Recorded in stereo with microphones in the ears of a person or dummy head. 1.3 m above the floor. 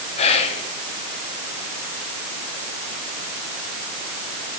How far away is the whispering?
About 1.0 m.